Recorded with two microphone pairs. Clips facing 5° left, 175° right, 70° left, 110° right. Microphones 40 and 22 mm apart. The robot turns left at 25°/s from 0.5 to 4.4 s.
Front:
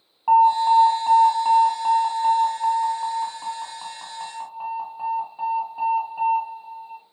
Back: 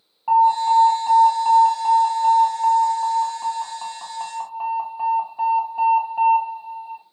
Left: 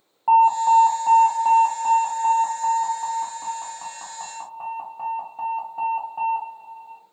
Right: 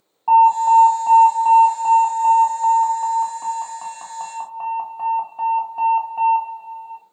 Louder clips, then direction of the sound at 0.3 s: Even, right 3 dB; 15° right.